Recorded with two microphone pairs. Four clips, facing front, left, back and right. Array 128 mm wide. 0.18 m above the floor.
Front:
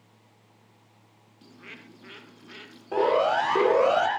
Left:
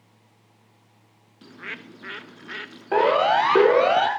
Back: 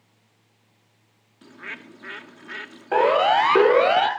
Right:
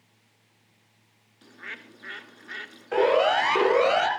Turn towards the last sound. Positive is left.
turn(degrees=150)